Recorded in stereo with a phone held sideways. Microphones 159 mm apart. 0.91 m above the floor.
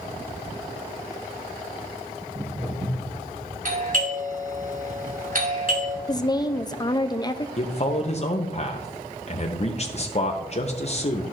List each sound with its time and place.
2.2 s footsteps: 65° right (ahead or behind), 3 m
3.6 s a doorbell: 60° right (ahead or behind), 2.5 m
6.1 s a woman speaking: 25° left (ahead or behind), 0.5 m
7.6 s a man speaking: 45° left (ahead or behind), 0.8 m